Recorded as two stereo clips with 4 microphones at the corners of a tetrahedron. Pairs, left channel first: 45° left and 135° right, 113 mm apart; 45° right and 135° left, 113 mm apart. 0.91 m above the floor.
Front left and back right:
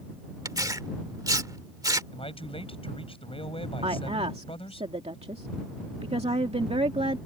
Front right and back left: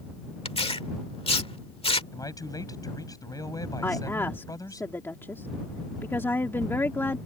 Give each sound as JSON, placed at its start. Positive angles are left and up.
{"t": 0.5, "sound": "tearing paper", "azimuth_deg": -75}
{"t": 2.1, "sound": "a man speaking", "azimuth_deg": 10}
{"t": 3.8, "sound": "a woman speaking", "azimuth_deg": -115}